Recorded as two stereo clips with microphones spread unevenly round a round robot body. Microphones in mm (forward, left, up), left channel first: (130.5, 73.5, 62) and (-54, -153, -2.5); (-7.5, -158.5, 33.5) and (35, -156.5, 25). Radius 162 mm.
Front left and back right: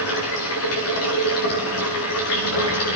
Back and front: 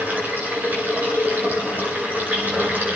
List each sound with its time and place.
0.0 s running water: 100° left, 9.5 m